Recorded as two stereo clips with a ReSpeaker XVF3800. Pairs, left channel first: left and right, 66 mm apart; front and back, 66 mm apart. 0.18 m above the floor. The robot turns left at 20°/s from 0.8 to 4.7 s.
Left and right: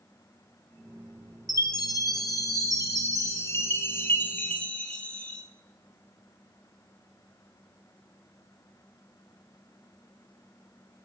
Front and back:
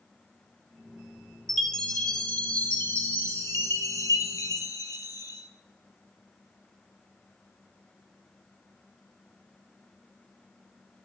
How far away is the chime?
About 1.9 m.